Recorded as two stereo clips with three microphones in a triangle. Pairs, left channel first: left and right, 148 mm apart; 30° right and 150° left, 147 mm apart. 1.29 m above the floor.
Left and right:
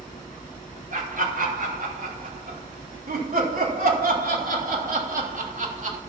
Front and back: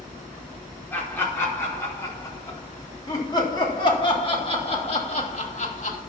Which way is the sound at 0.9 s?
105° right.